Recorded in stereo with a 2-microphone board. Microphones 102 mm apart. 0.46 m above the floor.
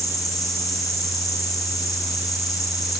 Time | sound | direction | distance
0.0 | an insect | 35° left (ahead or behind) | 7.5 m